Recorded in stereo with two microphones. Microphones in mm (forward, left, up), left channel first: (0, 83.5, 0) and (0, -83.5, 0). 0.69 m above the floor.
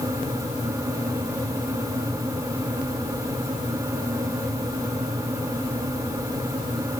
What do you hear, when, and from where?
Only background noise.